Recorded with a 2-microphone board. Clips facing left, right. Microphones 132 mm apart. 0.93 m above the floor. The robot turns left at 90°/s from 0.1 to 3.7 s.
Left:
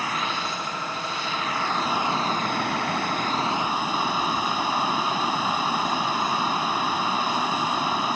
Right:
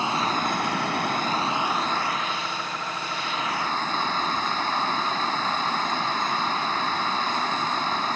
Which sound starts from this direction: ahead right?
Running water, at 0.0 s.